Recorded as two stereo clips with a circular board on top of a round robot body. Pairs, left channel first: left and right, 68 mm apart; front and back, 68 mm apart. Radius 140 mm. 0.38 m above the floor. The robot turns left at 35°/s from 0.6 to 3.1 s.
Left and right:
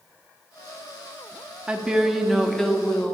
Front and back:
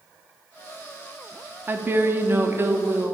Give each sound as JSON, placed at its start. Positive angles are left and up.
{"t": 1.7, "sound": "a woman speaking", "azimuth_deg": -155, "distance_m": 0.9}